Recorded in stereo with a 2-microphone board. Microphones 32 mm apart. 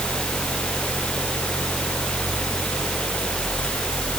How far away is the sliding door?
I don't hear a sliding door.